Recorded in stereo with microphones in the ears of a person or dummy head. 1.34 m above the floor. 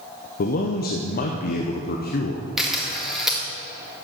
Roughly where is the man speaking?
Left.